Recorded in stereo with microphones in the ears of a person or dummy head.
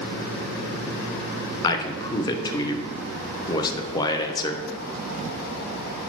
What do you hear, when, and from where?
1.6 s a man speaking: 20° left (ahead or behind), 0.6 m